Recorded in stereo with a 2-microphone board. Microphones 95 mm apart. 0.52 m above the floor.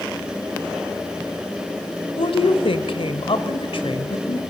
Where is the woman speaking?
70° left (ahead or behind), 1.8 m.